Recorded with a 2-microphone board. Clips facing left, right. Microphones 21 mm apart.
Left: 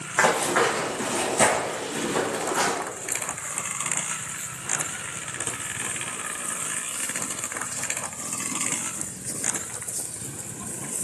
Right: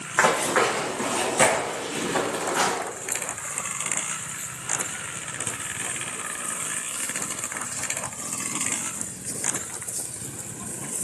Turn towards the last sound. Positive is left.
turn(degrees=-30)  # may be behind; listen again after turning